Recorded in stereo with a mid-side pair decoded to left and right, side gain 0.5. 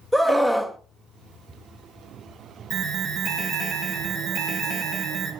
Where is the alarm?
60° right, 1.5 m.